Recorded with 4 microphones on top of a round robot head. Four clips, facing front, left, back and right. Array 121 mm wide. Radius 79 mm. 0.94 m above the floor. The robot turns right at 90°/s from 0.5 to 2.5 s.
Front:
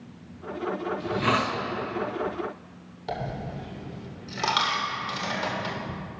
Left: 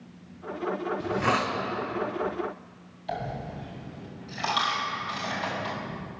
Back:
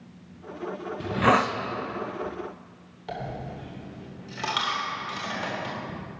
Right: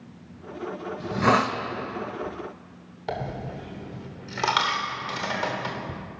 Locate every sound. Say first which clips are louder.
1.0 s a hiss: right 6 dB, back 5 dB; 170° right, 0.7 m; by 1.6 s 120° right, 0.7 m
3.1 s a dropped coin: right 2 dB, front 2 dB; 80° right, 1.5 m